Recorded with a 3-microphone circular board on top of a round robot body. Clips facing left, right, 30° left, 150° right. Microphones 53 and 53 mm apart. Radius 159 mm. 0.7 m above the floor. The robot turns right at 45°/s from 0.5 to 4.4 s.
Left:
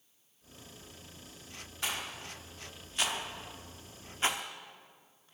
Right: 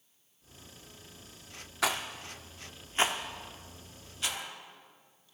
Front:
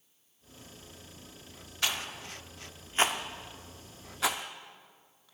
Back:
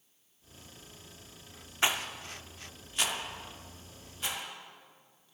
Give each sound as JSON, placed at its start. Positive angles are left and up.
{"t": 1.8, "sound": "a rattle", "azimuth_deg": -80, "distance_m": 0.7}